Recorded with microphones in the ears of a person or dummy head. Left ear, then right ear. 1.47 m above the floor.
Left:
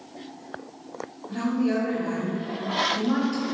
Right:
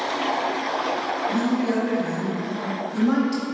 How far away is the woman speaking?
About 1.5 m.